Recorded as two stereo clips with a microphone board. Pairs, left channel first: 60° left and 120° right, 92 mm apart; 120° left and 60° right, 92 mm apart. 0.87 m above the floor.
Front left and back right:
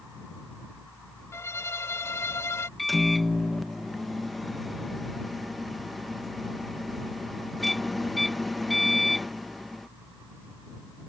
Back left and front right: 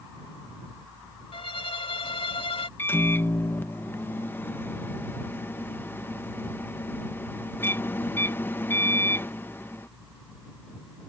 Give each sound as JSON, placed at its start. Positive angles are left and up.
{"t": 1.3, "sound": "a violin", "azimuth_deg": 120}
{"t": 2.8, "sound": "a microwave", "azimuth_deg": 150}